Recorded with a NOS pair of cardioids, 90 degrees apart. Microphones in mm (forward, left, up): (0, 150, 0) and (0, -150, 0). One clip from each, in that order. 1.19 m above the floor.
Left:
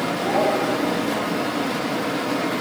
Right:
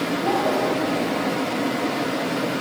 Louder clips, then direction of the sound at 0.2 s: Left 1 dB; 30° left.